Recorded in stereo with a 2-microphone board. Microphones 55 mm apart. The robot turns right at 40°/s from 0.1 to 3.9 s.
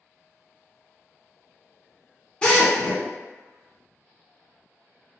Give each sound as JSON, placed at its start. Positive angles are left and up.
{"t": 2.4, "sound": "a drill", "side_deg": 20, "distance_m": 1.2}